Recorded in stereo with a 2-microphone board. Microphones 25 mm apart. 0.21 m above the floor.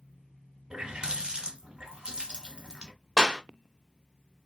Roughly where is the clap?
Centre.